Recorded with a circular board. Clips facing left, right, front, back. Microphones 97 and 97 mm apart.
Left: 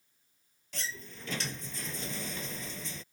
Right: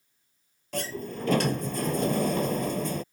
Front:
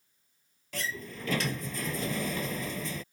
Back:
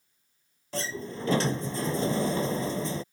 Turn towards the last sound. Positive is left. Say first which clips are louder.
# right 11 dB, back 4 dB
turn(degrees=-125)